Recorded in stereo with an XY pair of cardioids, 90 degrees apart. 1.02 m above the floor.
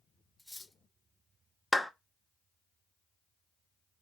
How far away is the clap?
About 0.8 m.